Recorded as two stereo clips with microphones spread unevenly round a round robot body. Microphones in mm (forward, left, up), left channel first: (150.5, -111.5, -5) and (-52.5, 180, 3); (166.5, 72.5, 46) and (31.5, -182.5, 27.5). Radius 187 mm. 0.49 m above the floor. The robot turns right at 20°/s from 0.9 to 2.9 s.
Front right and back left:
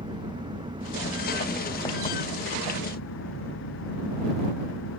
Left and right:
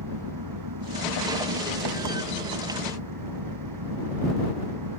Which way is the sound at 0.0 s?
155° right.